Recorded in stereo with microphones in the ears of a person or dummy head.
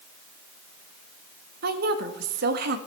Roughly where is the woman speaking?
Right.